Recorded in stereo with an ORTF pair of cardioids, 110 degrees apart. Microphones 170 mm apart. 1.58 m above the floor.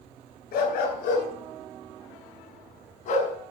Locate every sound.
0.5 s a dog barking: 70° left, 4 m; by 3.3 s 60° left, 2.5 m